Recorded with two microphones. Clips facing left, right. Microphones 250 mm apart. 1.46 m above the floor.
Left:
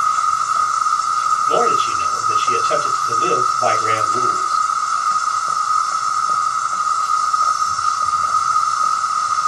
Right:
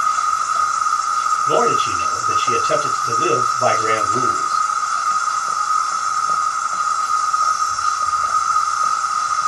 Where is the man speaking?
60° right (ahead or behind), 1.9 m.